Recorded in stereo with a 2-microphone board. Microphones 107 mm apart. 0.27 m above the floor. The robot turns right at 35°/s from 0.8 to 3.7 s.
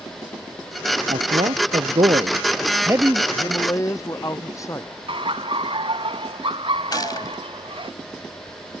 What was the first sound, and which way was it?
A man speaking, 90° right.